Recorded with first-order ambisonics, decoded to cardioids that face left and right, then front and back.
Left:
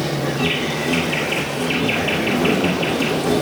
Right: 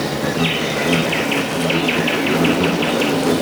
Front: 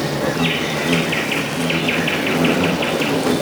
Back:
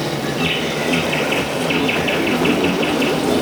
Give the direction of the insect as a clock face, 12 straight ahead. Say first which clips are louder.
Right 2 dB, front 1 dB; 2 o'clock.